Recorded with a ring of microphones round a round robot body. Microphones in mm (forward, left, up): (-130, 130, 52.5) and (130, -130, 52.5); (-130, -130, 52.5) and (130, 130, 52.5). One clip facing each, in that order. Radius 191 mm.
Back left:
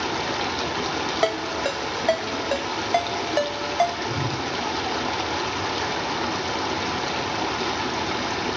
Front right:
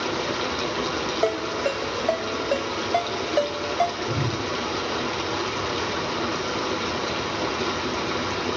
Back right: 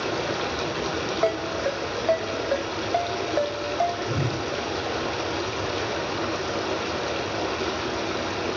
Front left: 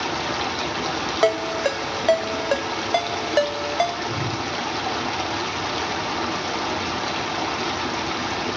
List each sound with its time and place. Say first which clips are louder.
0.0 s running water: front right 1 dB, back right 1 dB; 70° left, 1.0 m
1.2 s a ringtone: front right 2 dB, front left 6 dB; 70° left, 0.7 m
4.1 s a whoosh: front right 1 dB, back right 1 dB; 120° right, 0.6 m